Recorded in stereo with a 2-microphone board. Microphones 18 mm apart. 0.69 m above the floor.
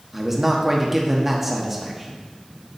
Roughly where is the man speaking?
Centre.